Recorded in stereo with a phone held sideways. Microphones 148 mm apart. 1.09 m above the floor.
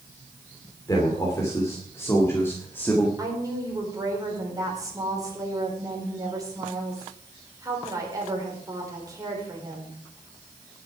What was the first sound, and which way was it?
A man speaking, 25° left (ahead or behind).